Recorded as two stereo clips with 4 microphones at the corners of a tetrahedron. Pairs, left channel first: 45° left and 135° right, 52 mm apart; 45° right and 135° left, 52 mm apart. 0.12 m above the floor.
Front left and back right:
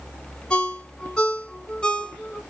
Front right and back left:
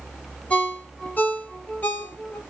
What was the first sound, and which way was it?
A ringtone, 20° right.